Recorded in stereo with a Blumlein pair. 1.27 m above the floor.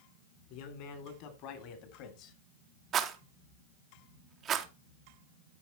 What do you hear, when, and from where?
0.5 s a man speaking: 45° left, 3.5 m; by 2.4 s 40° left, 2.5 m
2.9 s a rattle: 25° right, 1.3 m